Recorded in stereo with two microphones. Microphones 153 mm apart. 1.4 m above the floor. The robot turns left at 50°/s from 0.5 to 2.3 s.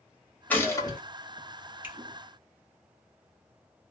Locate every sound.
0.5 s a gunshot: 10° left (ahead or behind), 1.1 m; by 1.0 s 30° left (ahead or behind), 1.1 m
1.8 s a finger snap: 15° right (ahead or behind), 0.7 m; by 2.0 s 20° right (ahead or behind), 0.7 m